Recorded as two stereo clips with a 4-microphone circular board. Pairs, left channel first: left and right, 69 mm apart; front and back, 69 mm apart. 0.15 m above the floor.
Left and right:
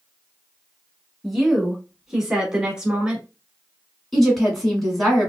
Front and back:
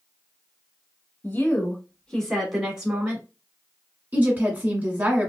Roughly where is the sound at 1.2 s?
Ahead.